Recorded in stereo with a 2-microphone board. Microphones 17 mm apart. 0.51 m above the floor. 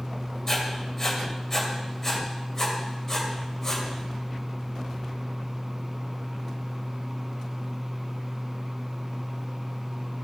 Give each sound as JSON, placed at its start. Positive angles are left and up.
{"t": 0.5, "sound": "writing", "side_deg": 25, "distance_m": 2.5}